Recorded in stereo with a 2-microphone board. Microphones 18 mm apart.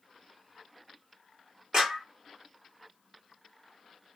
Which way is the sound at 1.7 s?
40° right (ahead or behind).